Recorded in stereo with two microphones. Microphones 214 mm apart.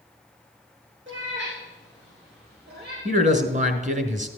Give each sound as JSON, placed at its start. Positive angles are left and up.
{"t": 1.1, "sound": "a cat meowing", "side_deg": -60, "distance_m": 5.0}
{"t": 3.0, "sound": "a man speaking", "side_deg": -35, "distance_m": 1.7}